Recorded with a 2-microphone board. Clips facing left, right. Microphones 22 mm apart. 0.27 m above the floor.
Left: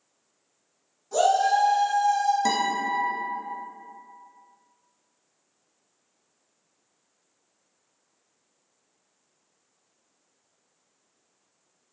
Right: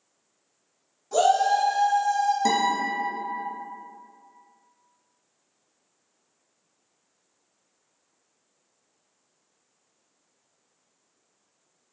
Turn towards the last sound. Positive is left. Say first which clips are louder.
# right 2 dB
turn(degrees=0)  # may be behind; listen again after turning